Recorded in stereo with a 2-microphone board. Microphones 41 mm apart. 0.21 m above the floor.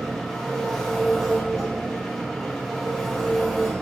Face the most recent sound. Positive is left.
turn(degrees=10)  # may be behind; listen again after turning